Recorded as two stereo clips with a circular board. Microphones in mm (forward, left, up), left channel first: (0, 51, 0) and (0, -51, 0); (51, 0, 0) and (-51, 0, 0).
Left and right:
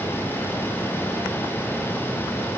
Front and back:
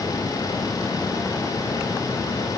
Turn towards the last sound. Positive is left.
No sound to turn to.